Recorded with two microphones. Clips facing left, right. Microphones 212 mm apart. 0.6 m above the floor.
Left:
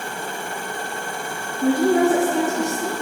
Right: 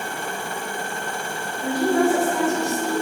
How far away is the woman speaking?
About 6.5 m.